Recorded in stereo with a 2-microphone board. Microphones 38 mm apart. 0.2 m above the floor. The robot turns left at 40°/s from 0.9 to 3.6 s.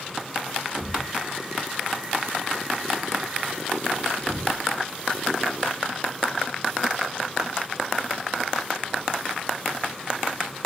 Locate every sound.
0.8 s a thud: 50° right (ahead or behind), 4 m; by 4.7 s 55° left (ahead or behind), 4 m